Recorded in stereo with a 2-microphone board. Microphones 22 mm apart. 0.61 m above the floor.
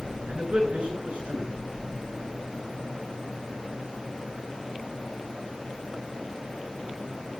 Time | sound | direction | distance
0.3 | a man speaking | 75° right (ahead or behind) | 8 m